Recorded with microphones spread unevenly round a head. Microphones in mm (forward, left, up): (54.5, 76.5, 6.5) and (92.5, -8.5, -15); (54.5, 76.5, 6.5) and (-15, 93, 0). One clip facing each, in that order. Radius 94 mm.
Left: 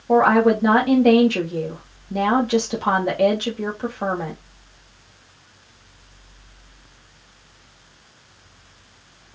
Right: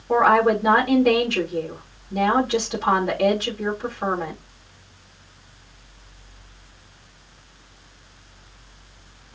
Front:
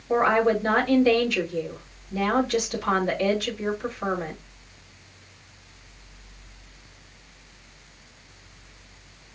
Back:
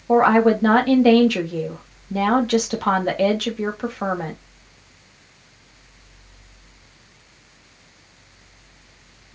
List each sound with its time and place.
0.1 s a woman speaking: 165° left, 2.5 m